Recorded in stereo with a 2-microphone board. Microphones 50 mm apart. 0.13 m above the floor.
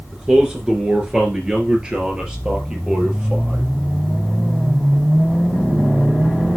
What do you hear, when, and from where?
0.1 s a man speaking: 20° right (ahead or behind), 1.9 m